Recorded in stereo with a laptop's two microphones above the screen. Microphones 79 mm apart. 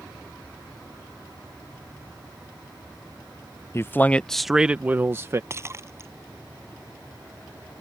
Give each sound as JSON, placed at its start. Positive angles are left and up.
{"t": 3.7, "sound": "a man speaking", "side_deg": 35}
{"t": 5.5, "sound": "breaking glass", "side_deg": -35}